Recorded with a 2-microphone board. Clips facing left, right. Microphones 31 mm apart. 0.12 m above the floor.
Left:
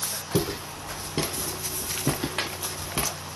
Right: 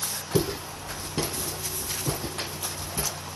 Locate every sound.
0.3 s footsteps: 10° left (ahead or behind), 1.5 m; by 3.1 s 60° left (ahead or behind), 0.8 m